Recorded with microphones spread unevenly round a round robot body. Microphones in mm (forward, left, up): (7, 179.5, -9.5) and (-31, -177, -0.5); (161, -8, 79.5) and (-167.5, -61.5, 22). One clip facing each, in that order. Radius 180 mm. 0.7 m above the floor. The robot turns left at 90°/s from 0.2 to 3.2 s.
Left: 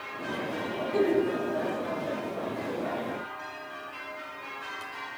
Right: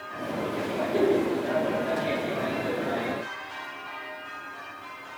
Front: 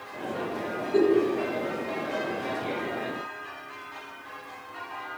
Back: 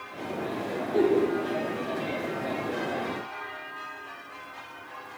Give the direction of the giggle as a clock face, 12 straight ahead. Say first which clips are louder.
Right 1 dB, front 2 dB; 12 o'clock.